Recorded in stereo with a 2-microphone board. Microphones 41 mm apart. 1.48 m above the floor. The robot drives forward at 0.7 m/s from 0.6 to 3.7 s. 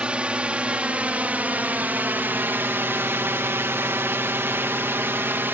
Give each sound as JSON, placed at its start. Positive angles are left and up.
{"t": 0.0, "sound": "a drone", "side_deg": -30}